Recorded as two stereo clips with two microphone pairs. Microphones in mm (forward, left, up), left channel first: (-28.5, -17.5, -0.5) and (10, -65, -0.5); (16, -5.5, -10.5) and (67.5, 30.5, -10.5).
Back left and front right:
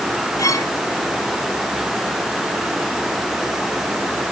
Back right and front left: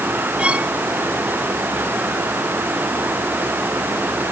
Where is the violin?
105° left.